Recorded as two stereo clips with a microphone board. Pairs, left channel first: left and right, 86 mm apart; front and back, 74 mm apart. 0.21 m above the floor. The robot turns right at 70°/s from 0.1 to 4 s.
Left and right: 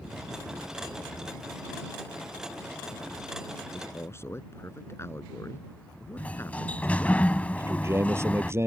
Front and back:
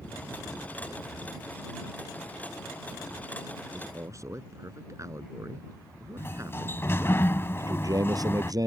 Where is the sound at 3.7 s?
125° left; by 7.2 s 145° left.